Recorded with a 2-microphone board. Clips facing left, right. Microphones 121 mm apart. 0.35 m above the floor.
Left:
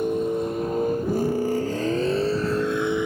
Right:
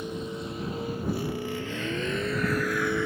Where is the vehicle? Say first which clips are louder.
Left 11 dB; 50° left (ahead or behind); by 3.1 s 15° left (ahead or behind).